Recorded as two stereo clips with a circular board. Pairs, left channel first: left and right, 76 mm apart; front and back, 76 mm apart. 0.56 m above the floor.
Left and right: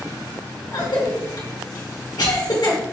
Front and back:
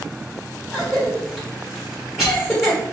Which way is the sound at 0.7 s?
95° left.